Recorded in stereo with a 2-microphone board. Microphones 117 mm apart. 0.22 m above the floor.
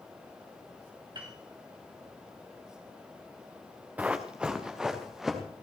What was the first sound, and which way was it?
A piano, 40° right (ahead or behind).